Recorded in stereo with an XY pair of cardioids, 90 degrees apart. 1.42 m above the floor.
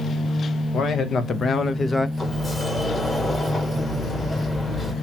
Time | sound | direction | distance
0.7 | a man speaking | 70° left | 1.1 m
2.2 | a sliding door | 25° left | 1.5 m